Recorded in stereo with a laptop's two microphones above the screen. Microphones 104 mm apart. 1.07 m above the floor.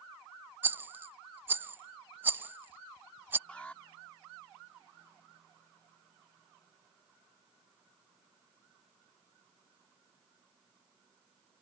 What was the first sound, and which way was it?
A rattle, 20° right (ahead or behind).